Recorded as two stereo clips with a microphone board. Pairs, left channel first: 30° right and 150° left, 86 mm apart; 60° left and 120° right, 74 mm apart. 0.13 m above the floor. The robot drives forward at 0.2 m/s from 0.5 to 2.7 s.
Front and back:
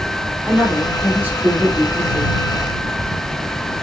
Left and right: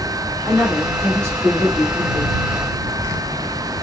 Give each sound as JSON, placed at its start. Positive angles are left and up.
{"t": 0.4, "sound": "a woman speaking", "azimuth_deg": -145, "distance_m": 1.3}